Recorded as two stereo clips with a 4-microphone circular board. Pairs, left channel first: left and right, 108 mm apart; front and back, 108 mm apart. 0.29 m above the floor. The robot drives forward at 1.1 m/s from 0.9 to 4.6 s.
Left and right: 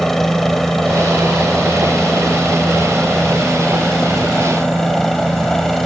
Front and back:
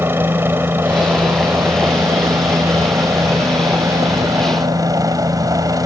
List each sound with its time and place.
0.0 s a helicopter: 170° left; by 5.9 s 175° left